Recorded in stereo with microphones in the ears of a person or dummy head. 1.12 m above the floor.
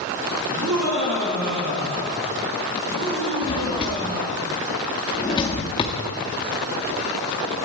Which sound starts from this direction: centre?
A drawer, at 3.4 s.